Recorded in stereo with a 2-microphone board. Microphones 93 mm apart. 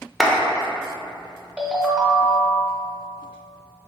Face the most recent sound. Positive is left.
turn(degrees=-10)  # may be behind; listen again after turning